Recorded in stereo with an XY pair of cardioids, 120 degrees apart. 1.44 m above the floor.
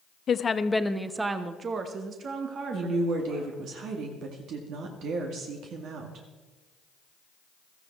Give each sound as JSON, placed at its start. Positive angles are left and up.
{"t": 0.3, "sound": "a woman speaking", "azimuth_deg": 40, "distance_m": 0.9}
{"t": 2.7, "sound": "a woman speaking", "azimuth_deg": -70, "distance_m": 2.0}